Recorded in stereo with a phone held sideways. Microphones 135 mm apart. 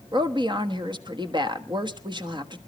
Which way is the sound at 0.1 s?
35° right (ahead or behind).